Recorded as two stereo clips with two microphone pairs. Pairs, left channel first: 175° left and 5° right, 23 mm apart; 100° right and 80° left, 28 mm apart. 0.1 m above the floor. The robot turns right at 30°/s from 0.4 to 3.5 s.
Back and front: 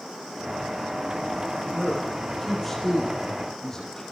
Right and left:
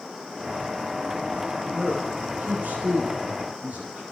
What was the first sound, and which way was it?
A man speaking, 60° left.